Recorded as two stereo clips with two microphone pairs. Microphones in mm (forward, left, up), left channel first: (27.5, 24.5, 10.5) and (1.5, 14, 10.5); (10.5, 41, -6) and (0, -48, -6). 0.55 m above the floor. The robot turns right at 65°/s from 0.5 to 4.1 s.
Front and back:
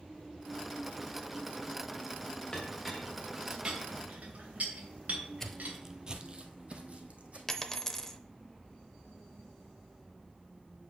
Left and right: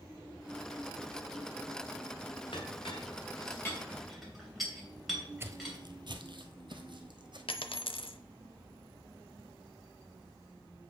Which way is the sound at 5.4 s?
45° right.